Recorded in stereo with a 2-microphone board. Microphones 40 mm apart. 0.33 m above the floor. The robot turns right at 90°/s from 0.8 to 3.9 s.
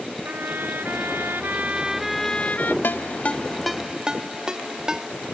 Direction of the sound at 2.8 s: 65° left (ahead or behind).